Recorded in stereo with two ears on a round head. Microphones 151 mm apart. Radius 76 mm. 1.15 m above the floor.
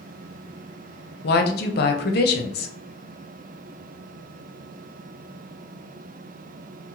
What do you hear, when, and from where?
1.2 s a woman speaking: 65° left (ahead or behind), 0.5 m